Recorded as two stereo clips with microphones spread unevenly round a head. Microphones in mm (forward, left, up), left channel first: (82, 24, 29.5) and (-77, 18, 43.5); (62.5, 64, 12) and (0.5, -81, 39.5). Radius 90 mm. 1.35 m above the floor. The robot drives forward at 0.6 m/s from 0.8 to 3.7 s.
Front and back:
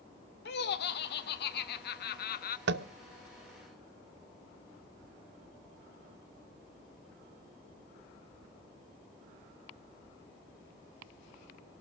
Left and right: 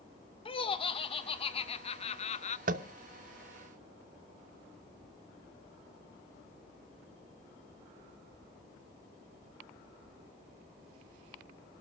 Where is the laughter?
10° left, 1.9 m; by 2.6 s 25° left, 0.9 m.